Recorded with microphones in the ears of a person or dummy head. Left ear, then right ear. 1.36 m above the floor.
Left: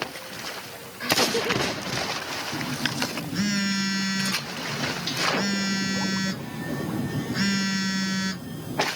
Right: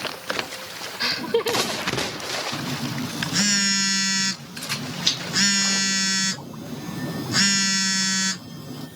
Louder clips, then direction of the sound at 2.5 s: Left 1 dB; 55° right (ahead or behind).